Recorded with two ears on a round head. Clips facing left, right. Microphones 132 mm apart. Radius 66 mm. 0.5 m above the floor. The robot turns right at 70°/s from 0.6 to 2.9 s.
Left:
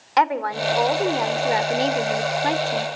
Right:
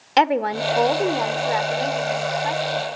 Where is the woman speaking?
40° right, 1.1 m; by 2.9 s 120° left, 1.1 m.